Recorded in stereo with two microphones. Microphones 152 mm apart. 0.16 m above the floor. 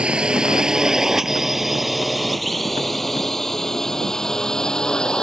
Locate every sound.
0.0 s a drone: 5° right (ahead or behind); by 5.2 s 5° left (ahead or behind)